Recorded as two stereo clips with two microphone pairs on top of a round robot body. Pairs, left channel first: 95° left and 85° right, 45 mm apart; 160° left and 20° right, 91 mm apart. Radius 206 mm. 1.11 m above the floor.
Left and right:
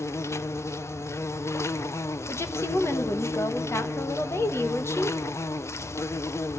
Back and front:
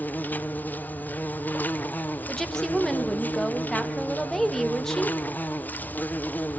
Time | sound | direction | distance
0.0 | an insect | 85° left | 0.8 m
2.3 | a woman speaking | 75° left | 1.6 m